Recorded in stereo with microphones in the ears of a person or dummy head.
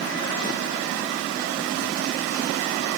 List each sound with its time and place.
Only background noise.